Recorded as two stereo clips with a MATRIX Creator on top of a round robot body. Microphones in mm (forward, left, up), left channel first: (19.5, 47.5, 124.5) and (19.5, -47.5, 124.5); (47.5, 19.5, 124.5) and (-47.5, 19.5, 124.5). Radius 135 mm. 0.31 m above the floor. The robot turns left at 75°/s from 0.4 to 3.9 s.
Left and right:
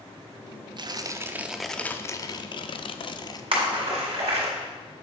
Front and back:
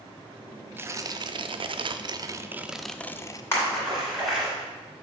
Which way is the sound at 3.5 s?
65° right.